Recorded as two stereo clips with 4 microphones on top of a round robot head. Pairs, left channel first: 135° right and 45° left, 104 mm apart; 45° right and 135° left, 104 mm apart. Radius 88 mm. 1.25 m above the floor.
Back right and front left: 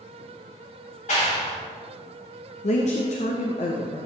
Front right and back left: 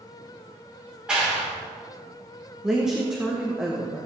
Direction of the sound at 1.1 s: 140° right.